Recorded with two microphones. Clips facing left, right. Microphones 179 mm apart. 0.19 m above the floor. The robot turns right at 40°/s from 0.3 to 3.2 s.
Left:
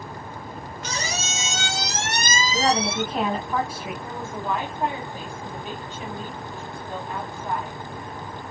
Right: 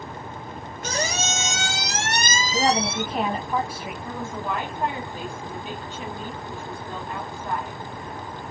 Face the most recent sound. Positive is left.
turn(degrees=15)  # may be behind; listen again after turning